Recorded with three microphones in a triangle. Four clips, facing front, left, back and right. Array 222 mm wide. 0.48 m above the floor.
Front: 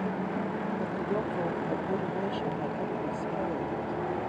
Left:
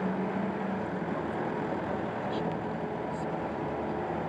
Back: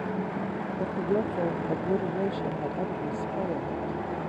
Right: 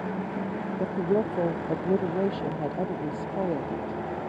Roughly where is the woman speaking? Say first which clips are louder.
Right 7 dB, back 7 dB; right.